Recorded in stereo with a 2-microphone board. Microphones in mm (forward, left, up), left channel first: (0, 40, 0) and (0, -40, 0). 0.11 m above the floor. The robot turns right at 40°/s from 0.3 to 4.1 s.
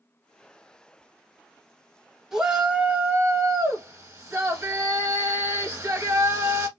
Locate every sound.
2.3 s a shout: 5° right (ahead or behind), 1.2 m; by 6.7 s 20° right (ahead or behind), 1.2 m